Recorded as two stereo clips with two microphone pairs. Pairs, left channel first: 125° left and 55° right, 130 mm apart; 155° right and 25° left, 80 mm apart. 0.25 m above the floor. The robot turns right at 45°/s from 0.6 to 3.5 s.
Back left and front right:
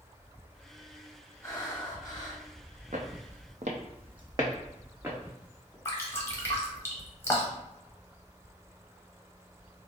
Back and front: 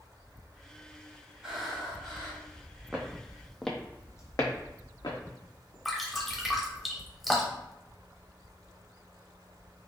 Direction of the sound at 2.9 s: 55° right.